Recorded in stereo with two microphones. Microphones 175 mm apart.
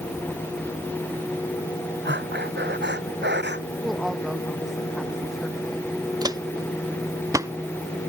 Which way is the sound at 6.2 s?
20° right (ahead or behind).